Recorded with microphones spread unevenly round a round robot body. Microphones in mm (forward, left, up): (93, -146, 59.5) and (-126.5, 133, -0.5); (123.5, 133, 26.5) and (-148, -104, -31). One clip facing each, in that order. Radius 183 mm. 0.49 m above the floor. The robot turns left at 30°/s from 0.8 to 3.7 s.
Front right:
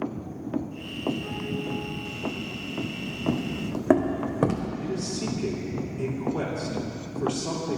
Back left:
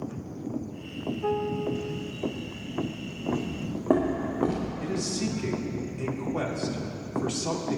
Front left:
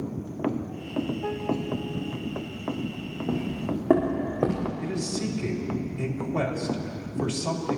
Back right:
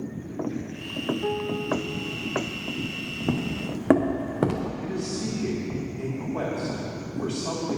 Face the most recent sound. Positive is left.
turn(degrees=75)